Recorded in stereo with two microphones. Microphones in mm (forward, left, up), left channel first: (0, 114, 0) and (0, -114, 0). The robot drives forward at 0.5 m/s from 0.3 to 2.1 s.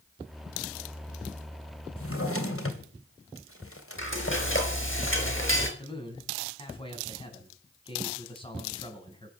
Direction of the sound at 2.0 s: 70° left (ahead or behind).